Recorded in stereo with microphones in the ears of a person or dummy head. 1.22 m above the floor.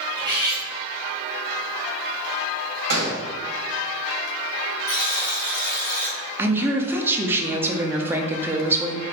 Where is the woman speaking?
15° right (ahead or behind), 0.5 m.